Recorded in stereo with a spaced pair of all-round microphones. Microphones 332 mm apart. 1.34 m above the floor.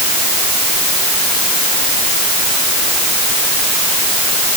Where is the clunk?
I don't hear a clunk.